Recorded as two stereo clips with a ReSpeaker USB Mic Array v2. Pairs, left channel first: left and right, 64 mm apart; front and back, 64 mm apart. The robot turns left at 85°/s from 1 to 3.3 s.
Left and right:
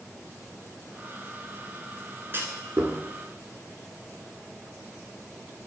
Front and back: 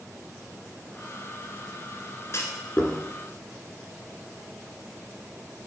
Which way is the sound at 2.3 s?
40° right.